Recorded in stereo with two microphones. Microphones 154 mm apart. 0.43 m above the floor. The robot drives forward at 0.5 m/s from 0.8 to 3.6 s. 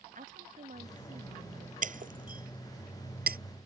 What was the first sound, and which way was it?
A woman speaking, 65° right (ahead or behind).